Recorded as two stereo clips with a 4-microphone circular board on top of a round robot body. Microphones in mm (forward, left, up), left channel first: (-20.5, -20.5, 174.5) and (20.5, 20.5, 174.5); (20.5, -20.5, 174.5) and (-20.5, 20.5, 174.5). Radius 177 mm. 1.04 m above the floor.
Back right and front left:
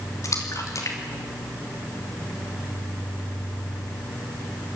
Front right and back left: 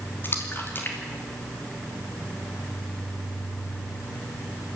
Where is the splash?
100° right, 3 m.